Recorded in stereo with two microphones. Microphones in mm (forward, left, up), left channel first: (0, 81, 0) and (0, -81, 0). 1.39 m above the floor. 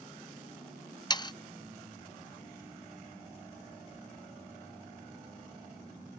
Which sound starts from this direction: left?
Sawing, at 1.1 s.